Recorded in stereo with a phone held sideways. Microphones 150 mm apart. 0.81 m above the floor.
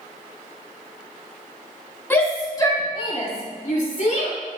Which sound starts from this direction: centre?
A shout, at 2.1 s.